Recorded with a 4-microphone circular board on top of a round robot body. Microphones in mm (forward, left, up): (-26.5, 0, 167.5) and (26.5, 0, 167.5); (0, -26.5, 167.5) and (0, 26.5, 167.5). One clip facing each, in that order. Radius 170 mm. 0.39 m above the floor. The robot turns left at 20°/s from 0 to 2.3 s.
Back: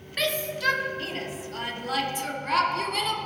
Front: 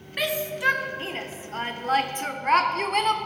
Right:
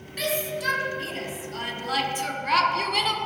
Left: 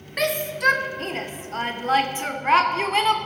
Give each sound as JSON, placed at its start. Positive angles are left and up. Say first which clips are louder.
{"t": 0.2, "sound": "a shout", "louder": "front 1 dB, left 5 dB", "azimuth_deg": 75, "distance_m": 1.8}